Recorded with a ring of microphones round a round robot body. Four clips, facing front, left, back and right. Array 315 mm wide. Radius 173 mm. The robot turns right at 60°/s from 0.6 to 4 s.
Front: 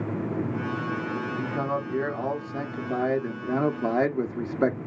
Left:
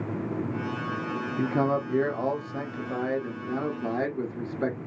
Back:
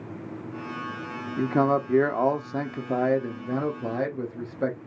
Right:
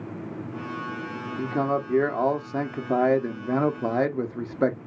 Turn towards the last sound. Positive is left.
turn(degrees=-40)